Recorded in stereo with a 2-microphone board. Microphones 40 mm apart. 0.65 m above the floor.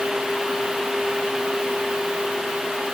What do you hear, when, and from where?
Only background noise.